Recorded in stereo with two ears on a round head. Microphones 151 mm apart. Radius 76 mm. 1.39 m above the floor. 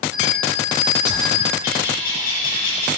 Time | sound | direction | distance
0.1 | a bell | 75° left (ahead or behind) | 3.5 m
1.6 | a bird | 60° left (ahead or behind) | 3 m